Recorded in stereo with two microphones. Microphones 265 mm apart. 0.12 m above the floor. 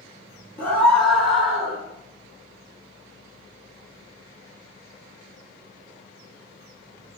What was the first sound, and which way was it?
A scream, 5° left (ahead or behind).